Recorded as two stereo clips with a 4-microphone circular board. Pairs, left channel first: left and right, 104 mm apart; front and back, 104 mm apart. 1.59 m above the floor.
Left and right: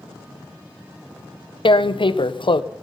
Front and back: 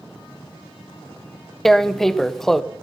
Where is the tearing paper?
85° left, 0.6 m.